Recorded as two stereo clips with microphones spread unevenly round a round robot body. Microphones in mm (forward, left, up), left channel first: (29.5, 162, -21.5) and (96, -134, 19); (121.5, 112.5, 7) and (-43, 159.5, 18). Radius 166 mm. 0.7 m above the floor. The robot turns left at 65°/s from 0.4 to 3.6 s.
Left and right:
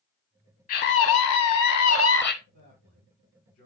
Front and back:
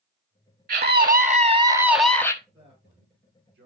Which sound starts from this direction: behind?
A scream, at 0.7 s.